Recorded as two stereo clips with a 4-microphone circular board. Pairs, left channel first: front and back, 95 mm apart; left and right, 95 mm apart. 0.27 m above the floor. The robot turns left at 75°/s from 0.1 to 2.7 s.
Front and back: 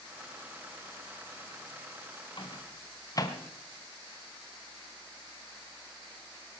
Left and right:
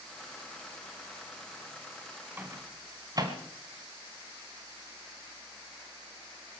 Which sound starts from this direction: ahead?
A microwave, at 2.4 s.